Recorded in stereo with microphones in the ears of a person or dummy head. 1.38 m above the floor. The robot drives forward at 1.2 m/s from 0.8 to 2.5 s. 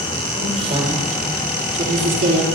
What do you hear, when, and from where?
0.3 s a woman speaking: 40° right (ahead or behind), 4.5 m; by 2.4 s 60° right (ahead or behind), 3.5 m